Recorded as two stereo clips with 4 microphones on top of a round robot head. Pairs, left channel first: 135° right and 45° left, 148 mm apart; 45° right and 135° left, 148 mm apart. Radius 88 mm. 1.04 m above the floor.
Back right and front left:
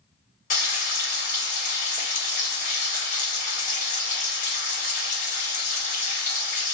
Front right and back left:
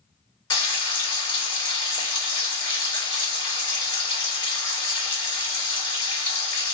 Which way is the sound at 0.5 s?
105° right.